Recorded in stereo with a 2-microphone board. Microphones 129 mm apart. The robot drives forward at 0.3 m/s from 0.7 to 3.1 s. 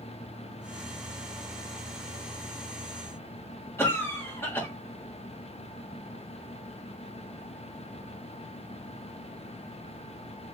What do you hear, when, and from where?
3.8 s a cough: 20° left (ahead or behind), 1.6 m